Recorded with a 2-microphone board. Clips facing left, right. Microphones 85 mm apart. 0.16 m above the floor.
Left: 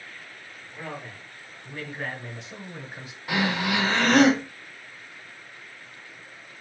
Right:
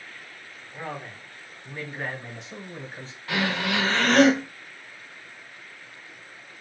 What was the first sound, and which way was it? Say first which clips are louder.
A man speaking: right 2 dB; 25° right (ahead or behind).